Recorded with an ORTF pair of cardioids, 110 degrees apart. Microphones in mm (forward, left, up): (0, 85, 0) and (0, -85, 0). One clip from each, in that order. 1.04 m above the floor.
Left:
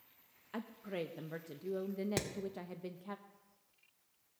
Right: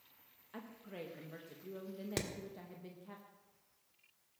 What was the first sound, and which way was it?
A woman speaking, 40° left.